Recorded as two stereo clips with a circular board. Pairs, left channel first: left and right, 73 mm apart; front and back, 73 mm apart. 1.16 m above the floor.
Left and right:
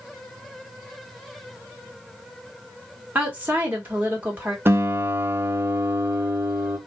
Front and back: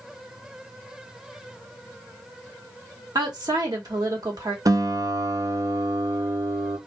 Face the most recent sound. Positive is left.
turn(degrees=-145)